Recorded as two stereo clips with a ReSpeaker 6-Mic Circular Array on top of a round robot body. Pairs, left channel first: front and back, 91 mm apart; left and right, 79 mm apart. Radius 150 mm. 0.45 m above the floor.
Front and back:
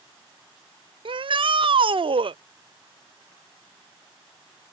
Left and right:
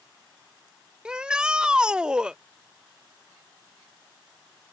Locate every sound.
1.1 s a shout: 170° right